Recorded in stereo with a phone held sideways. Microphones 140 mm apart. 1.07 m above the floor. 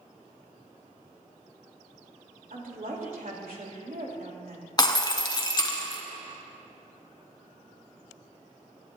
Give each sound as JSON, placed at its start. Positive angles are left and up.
{"t": 2.5, "sound": "a woman speaking", "side_deg": -80, "distance_m": 2.5}
{"t": 4.8, "sound": "breaking glass", "side_deg": 30, "distance_m": 1.1}